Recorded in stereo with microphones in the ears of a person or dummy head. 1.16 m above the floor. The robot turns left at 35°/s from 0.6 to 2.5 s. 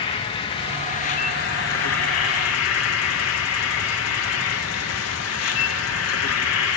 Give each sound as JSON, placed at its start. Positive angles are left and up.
{"t": 0.0, "sound": "an insect", "azimuth_deg": 155, "distance_m": 1.1}